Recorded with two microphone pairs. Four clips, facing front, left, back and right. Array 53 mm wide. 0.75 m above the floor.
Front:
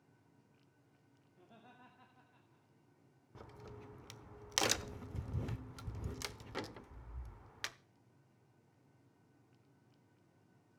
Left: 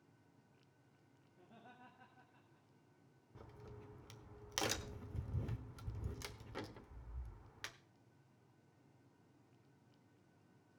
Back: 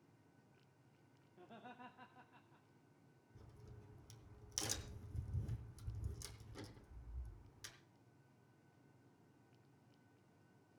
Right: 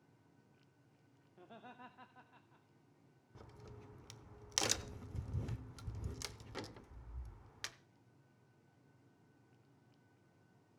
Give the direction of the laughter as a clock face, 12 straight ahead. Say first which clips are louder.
Right 6 dB, back 4 dB; 4 o'clock.